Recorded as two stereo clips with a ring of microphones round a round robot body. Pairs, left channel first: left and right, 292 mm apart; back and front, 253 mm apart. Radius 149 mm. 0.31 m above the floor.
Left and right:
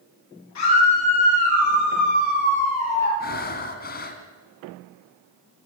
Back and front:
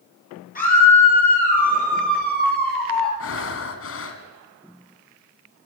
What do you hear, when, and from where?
0.6 s a scream: 125° left, 9.5 m; by 3.1 s 130° left, 8.5 m
3.2 s breathing: 150° left, 2 m